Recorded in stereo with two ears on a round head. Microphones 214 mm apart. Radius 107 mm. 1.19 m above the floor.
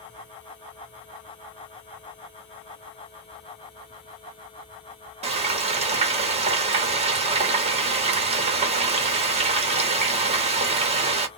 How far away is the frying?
About 0.8 m.